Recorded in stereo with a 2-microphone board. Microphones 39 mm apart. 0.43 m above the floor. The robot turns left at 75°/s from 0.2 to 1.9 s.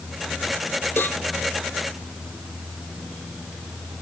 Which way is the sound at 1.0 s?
65° left (ahead or behind).